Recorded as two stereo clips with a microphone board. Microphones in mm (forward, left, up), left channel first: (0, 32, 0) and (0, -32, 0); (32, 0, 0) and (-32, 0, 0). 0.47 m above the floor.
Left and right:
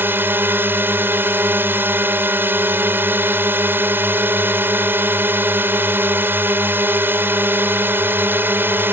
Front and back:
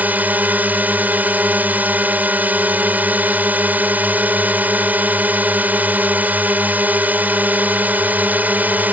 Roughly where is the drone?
Behind right.